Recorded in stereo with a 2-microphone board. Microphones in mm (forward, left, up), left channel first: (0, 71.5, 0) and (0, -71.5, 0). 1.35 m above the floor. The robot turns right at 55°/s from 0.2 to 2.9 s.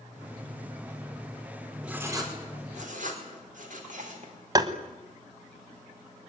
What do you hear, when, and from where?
1.8 s writing: 5° right (ahead or behind), 5 m; by 4.3 s 65° right (ahead or behind), 5 m
4.5 s tapping: 25° right (ahead or behind), 1.5 m